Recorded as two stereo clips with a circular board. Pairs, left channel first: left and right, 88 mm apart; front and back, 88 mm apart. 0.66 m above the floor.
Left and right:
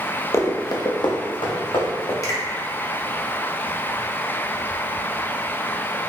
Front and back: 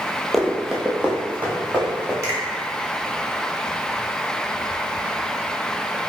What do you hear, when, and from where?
0.3 s running footsteps: 85° left, 0.7 m; by 2.1 s 110° left, 2 m
2.2 s a finger snap: 130° left, 1.2 m